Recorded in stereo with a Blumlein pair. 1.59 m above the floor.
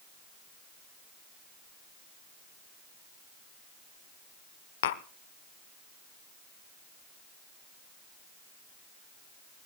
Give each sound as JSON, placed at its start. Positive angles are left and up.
{"t": 4.8, "sound": "tapping", "azimuth_deg": 60, "distance_m": 1.0}